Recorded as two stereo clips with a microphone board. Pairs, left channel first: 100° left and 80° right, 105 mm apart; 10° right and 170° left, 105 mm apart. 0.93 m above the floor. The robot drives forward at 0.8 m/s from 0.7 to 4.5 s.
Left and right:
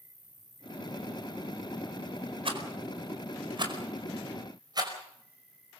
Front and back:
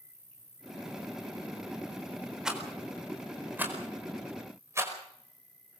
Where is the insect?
120° right, 2 m; by 5.8 s 155° right, 4.5 m.